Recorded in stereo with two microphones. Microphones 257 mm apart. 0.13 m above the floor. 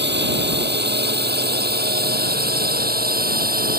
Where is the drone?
40° right (ahead or behind); by 3.8 s 35° right (ahead or behind).